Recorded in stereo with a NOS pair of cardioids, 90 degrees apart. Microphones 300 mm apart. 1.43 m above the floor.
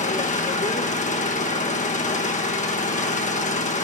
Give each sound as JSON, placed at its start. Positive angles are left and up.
{"t": 0.0, "sound": "an engine running", "azimuth_deg": 25, "distance_m": 1.4}